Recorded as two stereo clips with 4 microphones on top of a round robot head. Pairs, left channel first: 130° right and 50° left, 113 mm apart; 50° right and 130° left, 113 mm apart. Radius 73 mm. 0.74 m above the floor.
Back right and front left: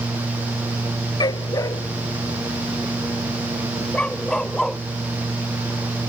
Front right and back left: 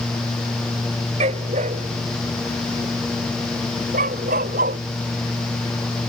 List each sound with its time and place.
1.2 s a dog barking: 170° left; by 4.8 s 140° left